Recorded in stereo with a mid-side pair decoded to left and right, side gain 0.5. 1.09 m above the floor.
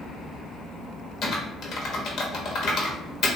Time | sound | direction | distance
1.2 | typing on a keyboard | 55° left | 0.9 m